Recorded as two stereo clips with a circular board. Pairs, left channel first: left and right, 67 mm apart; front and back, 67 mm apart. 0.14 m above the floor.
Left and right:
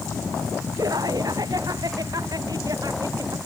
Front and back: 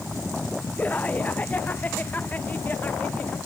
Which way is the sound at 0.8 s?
65° right.